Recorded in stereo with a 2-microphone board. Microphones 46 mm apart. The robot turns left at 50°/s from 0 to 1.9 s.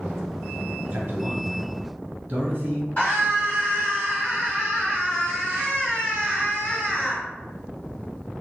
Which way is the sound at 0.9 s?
50° right (ahead or behind).